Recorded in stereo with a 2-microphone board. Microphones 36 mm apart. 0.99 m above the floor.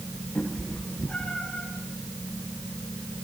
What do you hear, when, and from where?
0.3 s a cat meowing: 20° left (ahead or behind), 9 m; by 1.7 s 30° left (ahead or behind), 8.5 m